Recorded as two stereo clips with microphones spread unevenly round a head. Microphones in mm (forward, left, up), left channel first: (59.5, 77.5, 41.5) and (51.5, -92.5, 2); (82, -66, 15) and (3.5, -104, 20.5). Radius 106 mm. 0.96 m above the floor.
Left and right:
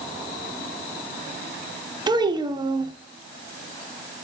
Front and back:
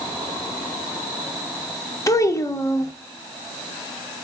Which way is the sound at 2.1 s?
30° right.